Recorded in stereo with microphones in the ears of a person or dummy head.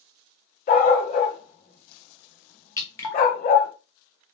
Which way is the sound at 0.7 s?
40° left (ahead or behind).